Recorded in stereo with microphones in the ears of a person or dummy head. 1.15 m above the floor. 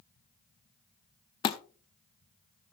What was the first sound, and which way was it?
A thud, 25° left (ahead or behind).